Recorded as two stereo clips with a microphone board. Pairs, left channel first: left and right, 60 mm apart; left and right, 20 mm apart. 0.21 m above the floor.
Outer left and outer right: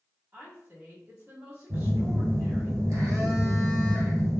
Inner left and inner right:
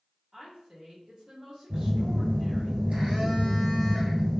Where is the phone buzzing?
65° right (ahead or behind), 1.5 m.